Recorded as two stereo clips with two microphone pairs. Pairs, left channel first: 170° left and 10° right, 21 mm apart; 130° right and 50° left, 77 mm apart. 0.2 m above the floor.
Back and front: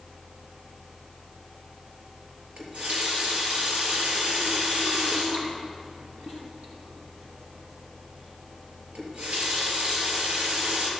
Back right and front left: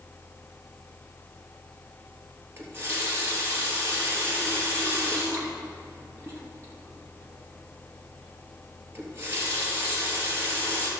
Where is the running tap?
5° right, 3 m.